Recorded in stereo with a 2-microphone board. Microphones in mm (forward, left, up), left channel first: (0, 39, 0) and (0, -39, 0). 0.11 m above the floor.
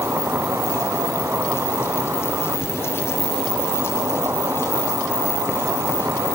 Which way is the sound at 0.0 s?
35° right (ahead or behind).